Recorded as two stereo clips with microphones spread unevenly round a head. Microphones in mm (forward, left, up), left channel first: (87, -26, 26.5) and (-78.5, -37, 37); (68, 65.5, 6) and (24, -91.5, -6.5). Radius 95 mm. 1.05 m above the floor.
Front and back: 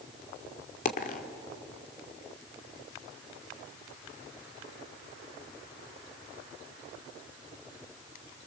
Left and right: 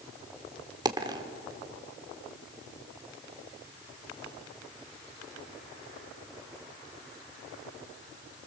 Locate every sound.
0.8 s a dropped coin: 40° right, 1.4 m